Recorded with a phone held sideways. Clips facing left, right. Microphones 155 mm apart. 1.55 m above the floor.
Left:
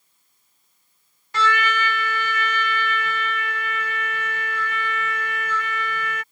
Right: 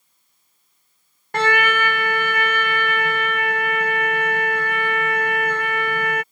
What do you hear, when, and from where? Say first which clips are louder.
1.3 s a trumpet: right 3 dB; 55° right (ahead or behind)